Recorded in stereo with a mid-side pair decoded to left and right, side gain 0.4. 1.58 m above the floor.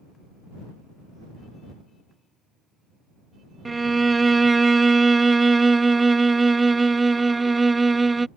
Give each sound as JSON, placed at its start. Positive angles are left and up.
{"t": 3.6, "sound": "a violin", "azimuth_deg": -25}